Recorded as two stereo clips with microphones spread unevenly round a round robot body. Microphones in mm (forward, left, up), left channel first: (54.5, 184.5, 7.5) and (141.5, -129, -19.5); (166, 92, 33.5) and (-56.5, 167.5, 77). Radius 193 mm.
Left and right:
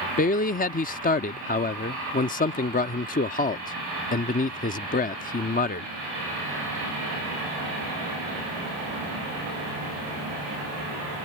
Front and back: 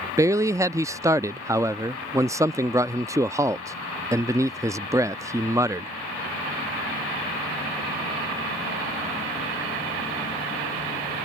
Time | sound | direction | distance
0.2 | a man speaking | 75° left | ?